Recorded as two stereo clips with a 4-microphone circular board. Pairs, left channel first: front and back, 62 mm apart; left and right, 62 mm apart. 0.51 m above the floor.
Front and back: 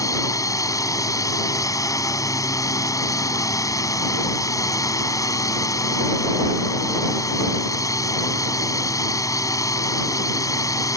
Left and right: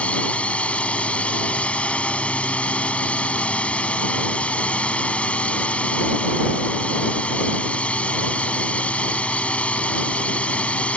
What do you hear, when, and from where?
0.0 s a drone: 20° left